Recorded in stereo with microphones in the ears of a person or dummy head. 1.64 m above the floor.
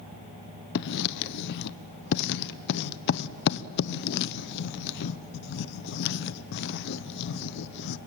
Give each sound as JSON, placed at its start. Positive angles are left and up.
{"t": 0.8, "sound": "writing", "side_deg": 55, "distance_m": 0.7}